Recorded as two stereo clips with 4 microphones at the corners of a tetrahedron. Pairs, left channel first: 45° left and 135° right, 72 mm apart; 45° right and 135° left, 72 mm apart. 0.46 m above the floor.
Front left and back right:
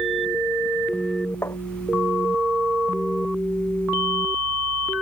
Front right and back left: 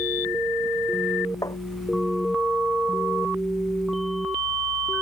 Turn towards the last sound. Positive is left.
turn(degrees=-10)